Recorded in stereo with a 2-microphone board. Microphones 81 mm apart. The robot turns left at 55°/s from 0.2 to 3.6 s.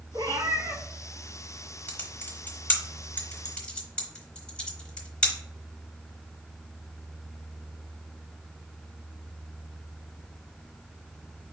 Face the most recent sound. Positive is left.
turn(degrees=15)  # may be behind; listen again after turning